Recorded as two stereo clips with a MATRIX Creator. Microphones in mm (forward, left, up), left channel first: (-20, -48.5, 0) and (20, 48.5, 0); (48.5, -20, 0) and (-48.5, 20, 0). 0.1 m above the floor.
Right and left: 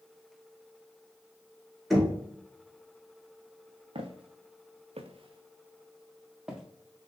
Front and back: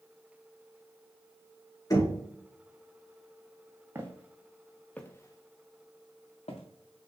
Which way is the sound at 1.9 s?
25° right.